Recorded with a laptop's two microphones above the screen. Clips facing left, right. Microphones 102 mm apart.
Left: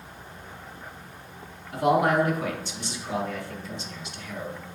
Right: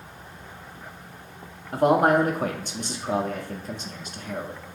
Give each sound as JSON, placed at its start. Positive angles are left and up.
{"t": 1.7, "sound": "a man speaking", "side_deg": -45, "distance_m": 1.6}